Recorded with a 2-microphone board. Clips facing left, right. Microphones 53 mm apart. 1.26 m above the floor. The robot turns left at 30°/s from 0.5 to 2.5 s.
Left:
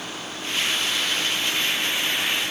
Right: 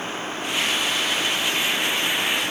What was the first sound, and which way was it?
Only background noise.